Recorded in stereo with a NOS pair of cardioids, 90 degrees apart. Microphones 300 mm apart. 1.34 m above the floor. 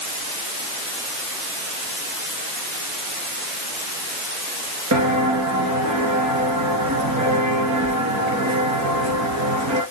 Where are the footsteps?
70° right, 4.5 m.